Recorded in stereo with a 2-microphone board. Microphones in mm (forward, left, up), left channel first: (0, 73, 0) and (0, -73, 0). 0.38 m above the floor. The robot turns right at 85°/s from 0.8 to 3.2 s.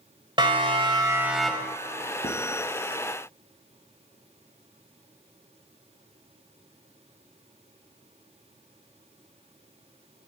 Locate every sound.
0.4 s a siren: 35° right (ahead or behind), 2.5 m; by 2.1 s 50° left (ahead or behind), 3.5 m
2.2 s writing: 50° left (ahead or behind), 3 m; by 2.4 s 60° left (ahead or behind), 3 m